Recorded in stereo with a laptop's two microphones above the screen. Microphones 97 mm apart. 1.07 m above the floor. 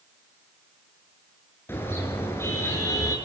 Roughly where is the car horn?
Left.